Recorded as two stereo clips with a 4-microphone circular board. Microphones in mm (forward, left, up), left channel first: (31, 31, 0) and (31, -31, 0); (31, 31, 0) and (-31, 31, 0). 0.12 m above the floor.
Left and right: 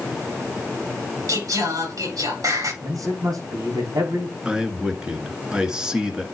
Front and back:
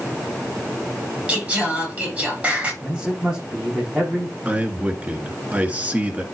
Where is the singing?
110° right, 6 m.